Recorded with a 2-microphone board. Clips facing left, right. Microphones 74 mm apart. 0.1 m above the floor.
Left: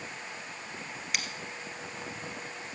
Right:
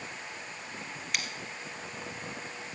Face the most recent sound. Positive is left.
turn(degrees=0)  # may be behind; listen again after turning